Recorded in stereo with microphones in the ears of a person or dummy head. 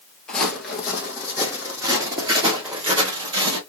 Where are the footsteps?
10° left (ahead or behind), 1.3 m; by 3.6 s 25° right (ahead or behind), 1.8 m.